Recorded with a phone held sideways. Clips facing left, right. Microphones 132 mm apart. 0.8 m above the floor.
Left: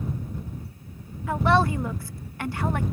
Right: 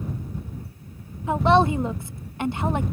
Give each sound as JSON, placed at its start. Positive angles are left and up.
{"t": 1.3, "sound": "a woman speaking", "side_deg": -20}